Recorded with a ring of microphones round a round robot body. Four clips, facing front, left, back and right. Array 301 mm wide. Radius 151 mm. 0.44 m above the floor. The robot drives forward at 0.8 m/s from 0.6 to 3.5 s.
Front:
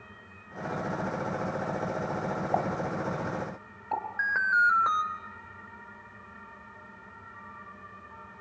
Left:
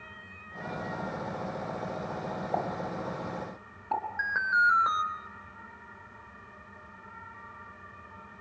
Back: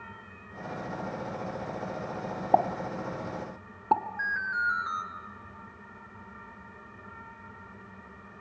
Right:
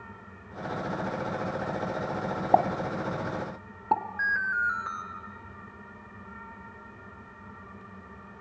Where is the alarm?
20° left, 3 m.